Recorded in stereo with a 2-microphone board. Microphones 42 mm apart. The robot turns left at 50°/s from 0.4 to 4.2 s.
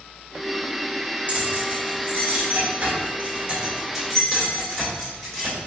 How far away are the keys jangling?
About 1.7 m.